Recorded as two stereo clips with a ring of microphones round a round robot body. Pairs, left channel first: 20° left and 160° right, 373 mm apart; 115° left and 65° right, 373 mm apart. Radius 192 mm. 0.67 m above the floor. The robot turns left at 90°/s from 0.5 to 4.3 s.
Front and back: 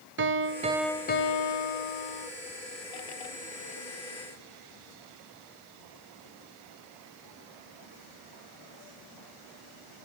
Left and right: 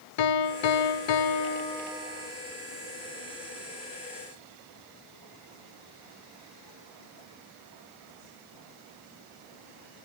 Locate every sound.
0.2 s a piano: 145° left, 0.8 m; by 2.3 s 20° right, 0.8 m